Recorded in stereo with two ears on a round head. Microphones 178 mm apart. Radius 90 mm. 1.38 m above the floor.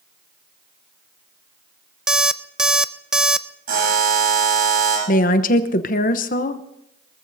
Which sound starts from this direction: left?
A woman speaking, at 5.1 s.